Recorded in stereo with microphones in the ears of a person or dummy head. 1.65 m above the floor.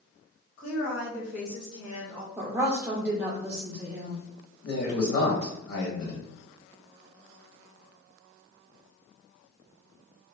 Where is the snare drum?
No snare drum in this recording.